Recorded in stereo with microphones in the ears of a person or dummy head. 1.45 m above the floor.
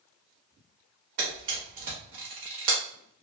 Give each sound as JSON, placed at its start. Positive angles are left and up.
{"t": 1.2, "sound": "a camera shutter", "side_deg": -40, "distance_m": 0.8}